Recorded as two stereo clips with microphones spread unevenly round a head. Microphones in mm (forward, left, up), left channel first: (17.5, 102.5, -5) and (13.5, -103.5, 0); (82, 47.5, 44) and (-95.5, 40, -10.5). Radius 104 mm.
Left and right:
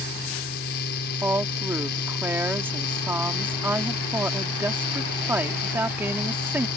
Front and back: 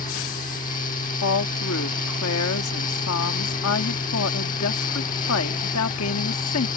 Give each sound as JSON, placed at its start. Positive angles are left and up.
{"t": 0.0, "sound": "a fan", "azimuth_deg": 50}
{"t": 1.2, "sound": "a woman speaking", "azimuth_deg": -10}